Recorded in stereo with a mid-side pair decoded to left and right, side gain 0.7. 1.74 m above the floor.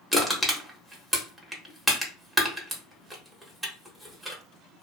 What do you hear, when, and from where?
0.1 s crushing: 5° right, 1.0 m